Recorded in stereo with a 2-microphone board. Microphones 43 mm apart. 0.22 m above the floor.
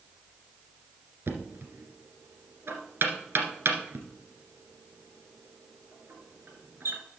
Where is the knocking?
65° right (ahead or behind), 1.8 m.